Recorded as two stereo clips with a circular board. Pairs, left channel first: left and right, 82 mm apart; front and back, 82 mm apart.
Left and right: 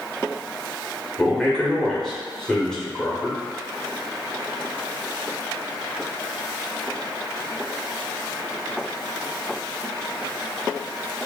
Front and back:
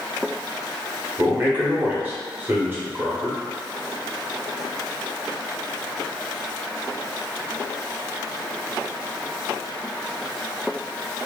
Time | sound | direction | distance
1.2 | a man speaking | 170° left | 1.1 m